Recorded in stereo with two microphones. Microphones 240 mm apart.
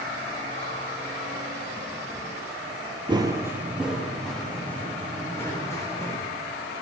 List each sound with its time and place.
3.1 s running footsteps: 20° right (ahead or behind), 1.5 m; by 6.2 s 10° left (ahead or behind), 5 m